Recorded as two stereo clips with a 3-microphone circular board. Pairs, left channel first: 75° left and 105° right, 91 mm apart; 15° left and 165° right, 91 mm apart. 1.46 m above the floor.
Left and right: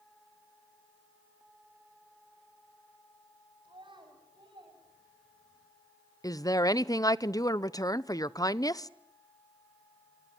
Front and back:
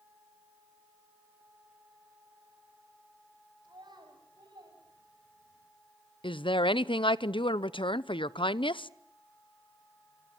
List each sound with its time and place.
3.6 s a child speaking: 130° right, 8 m; by 5.7 s 135° right, 7 m
6.2 s a woman speaking: 30° left, 0.8 m